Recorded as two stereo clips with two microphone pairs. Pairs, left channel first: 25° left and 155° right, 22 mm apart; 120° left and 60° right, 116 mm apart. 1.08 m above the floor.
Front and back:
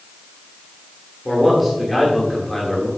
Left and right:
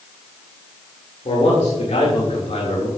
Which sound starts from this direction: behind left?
A man speaking, at 1.2 s.